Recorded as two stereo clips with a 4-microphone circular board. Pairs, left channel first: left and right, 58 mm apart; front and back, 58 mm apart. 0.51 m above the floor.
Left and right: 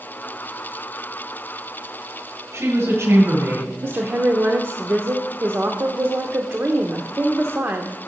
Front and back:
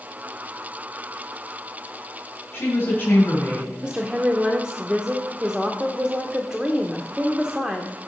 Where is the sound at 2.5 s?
55° right, 4 m.